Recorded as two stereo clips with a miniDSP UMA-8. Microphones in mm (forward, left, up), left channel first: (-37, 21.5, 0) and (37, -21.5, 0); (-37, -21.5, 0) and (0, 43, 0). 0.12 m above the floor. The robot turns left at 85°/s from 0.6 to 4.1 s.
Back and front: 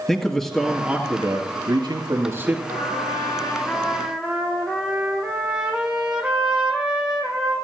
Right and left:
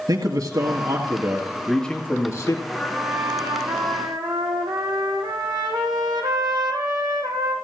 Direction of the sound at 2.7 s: 170° left.